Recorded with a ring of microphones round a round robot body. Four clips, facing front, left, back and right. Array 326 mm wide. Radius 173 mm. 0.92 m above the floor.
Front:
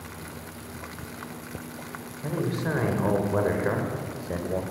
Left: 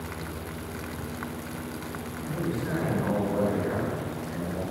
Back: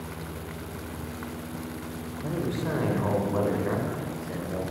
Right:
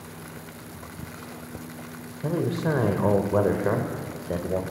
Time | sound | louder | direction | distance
2.2 | a man speaking | right 6 dB, front 1 dB | 85° right | 4 m